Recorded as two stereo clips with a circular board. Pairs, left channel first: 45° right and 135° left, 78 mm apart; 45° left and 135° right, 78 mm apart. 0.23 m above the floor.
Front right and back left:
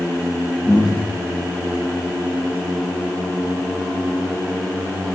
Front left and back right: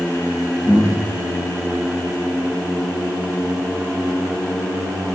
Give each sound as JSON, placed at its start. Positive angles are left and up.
{"t": 0.7, "sound": "breathing", "azimuth_deg": -55, "distance_m": 4.0}